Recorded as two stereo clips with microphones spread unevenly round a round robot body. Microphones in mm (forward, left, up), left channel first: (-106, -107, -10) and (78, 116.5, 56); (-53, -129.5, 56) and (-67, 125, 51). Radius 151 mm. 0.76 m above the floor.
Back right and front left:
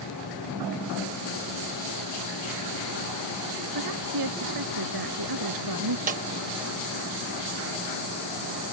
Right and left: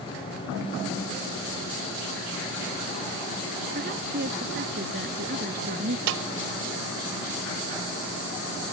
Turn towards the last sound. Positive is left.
turn(degrees=110)